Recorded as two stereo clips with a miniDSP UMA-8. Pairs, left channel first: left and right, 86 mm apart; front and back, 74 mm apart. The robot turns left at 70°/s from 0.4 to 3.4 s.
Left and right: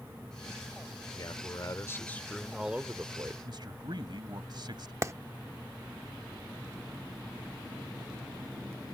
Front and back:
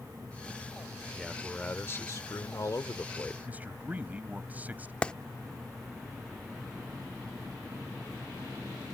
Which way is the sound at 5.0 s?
65° right.